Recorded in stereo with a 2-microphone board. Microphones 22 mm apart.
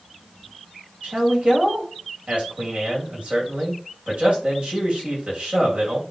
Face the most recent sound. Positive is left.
turn(degrees=-65)  # may be behind; listen again after turning